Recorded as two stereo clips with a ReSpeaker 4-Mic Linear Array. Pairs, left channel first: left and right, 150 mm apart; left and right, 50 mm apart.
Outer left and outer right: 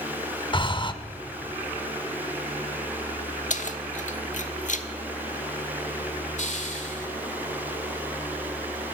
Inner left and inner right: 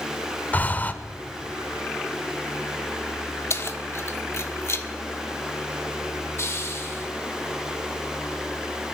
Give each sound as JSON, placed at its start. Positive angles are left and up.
{"t": 0.5, "sound": "breathing", "side_deg": 30, "distance_m": 0.9}
{"t": 3.5, "sound": "keys jangling", "side_deg": 55, "distance_m": 1.1}
{"t": 6.4, "sound": "a hiss", "side_deg": 55, "distance_m": 2.5}